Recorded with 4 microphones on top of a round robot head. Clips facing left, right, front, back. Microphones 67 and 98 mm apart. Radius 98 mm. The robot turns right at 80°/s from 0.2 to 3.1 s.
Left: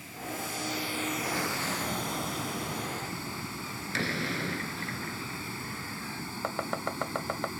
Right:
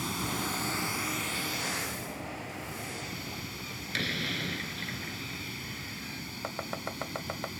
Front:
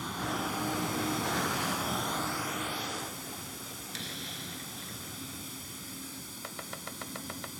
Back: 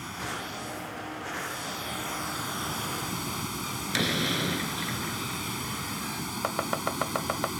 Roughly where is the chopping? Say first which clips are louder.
Left 5 dB, back 14 dB; behind left.